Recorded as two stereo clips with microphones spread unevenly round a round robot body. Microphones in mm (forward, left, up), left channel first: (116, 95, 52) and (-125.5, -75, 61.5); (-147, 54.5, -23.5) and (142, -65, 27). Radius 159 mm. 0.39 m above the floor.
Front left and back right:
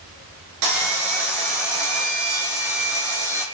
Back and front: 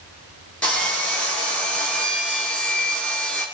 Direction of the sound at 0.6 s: 115° right.